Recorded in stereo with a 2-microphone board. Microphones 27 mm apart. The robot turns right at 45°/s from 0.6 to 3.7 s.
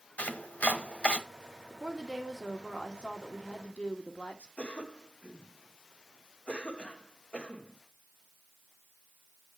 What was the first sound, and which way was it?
Chopping, 75° left (ahead or behind).